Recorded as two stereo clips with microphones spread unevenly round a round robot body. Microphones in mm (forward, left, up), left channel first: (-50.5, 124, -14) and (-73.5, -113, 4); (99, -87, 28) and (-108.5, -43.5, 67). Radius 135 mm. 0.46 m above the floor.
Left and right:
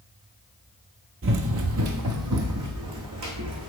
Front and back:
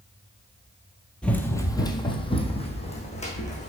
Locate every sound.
1.2 s running footsteps: 105° right, 0.7 m; by 3.7 s 70° right, 1.8 m